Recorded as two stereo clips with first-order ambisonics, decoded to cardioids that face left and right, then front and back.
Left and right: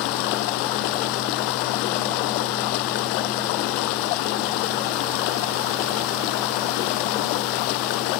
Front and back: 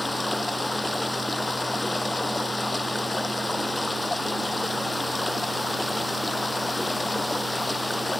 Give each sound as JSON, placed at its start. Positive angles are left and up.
{"t": 0.0, "sound": "running water", "azimuth_deg": 85}